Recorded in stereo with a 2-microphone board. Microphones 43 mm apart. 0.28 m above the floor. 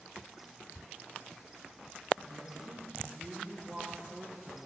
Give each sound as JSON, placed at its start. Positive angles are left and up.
{"t": 2.2, "sound": "a woman speaking", "side_deg": -15, "distance_m": 8.0}